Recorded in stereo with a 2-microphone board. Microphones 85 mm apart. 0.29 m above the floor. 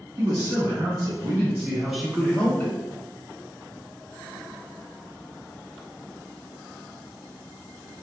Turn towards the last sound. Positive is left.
turn(degrees=25)  # may be behind; listen again after turning